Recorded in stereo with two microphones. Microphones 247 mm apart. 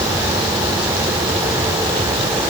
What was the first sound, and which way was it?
Only background noise.